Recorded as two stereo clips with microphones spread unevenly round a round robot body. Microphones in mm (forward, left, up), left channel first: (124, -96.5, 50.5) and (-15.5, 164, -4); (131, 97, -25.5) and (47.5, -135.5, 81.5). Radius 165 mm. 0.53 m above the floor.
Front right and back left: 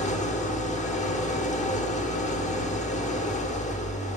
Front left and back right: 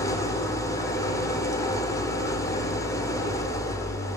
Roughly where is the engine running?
Ahead.